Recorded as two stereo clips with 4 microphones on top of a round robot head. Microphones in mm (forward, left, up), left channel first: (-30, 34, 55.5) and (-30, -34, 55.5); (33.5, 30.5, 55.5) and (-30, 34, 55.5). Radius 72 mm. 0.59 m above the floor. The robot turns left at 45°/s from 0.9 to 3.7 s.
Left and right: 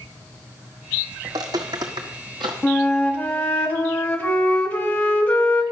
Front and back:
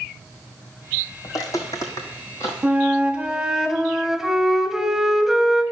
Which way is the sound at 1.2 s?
45° right.